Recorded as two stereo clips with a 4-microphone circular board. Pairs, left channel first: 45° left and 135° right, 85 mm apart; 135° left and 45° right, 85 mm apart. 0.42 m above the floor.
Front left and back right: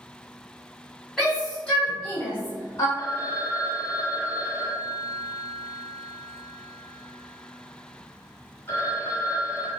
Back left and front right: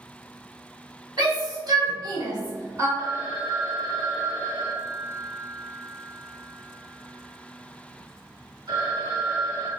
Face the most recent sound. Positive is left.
turn(degrees=-15)